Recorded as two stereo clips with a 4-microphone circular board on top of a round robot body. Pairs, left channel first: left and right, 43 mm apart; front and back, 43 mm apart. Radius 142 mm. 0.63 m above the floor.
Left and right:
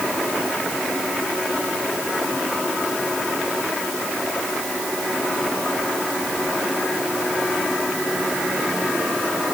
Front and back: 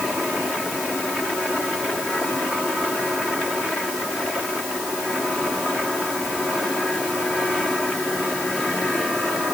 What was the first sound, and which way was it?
Only background noise.